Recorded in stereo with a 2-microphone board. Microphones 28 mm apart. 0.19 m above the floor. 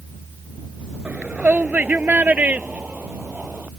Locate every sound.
1.1 s a shout: 65° right (ahead or behind); by 3.7 s 75° right (ahead or behind)